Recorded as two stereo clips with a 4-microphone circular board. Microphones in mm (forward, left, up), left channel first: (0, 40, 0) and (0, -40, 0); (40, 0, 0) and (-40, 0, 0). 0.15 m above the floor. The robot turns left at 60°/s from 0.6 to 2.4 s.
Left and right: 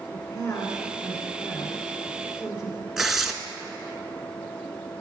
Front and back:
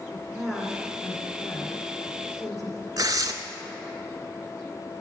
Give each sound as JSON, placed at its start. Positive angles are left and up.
{"t": 0.1, "sound": "a woman speaking", "azimuth_deg": 95, "distance_m": 1.9}
{"t": 3.0, "sound": "tearing paper", "azimuth_deg": -175, "distance_m": 0.6}